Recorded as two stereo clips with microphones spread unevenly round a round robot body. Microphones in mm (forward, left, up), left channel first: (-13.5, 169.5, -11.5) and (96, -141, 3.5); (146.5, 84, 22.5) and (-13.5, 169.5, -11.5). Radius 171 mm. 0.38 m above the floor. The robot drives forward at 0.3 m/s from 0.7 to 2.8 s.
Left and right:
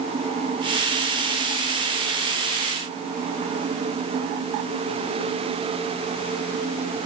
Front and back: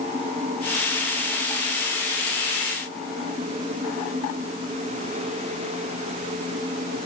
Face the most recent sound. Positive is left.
No sound to turn to.